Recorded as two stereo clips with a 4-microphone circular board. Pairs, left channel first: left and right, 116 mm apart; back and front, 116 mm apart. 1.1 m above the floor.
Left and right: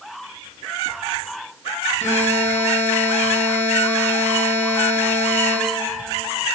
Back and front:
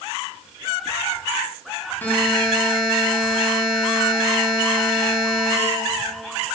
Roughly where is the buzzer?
Left.